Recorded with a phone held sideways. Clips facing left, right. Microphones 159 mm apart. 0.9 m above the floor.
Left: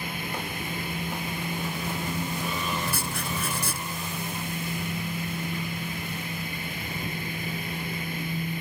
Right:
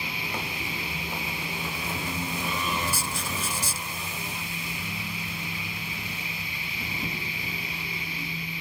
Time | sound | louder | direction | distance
0.0 | a machine running | left 1 dB | 50° left (ahead or behind) | ?
2.9 | writing | left 1 dB | 60° left (ahead or behind) | ?